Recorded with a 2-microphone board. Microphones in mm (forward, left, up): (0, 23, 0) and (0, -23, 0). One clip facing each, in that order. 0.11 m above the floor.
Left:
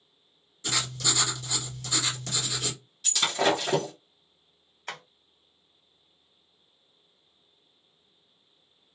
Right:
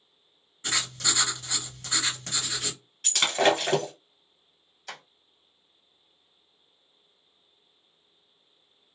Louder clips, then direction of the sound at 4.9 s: Left 3 dB; 40° left (ahead or behind).